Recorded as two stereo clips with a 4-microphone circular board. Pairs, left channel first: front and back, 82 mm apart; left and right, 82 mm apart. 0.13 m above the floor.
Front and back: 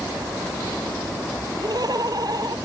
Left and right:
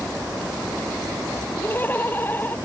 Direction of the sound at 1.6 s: 155° left.